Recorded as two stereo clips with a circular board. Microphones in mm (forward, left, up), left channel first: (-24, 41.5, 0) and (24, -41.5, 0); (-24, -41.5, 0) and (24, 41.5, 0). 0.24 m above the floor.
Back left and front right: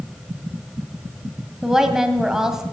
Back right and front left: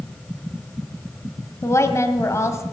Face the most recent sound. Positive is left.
turn(degrees=-140)